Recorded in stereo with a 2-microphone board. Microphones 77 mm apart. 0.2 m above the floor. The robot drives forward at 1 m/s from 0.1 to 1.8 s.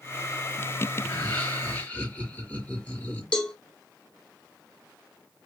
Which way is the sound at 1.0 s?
25° left (ahead or behind).